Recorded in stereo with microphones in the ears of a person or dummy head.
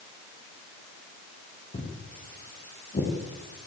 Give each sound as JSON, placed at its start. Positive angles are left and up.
{"t": 1.7, "sound": "footsteps", "side_deg": 25, "distance_m": 6.5}